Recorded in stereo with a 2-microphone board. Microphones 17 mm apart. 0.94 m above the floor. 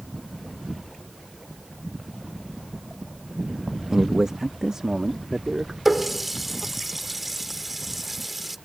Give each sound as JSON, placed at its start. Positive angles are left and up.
{"t": 3.9, "sound": "a man speaking", "side_deg": -25}
{"t": 5.8, "sound": "a running tap", "side_deg": -10}